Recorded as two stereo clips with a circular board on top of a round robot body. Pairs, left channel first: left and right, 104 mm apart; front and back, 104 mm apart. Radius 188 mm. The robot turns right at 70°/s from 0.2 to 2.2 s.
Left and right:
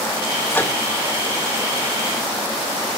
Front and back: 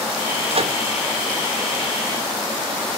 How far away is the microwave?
About 2 m.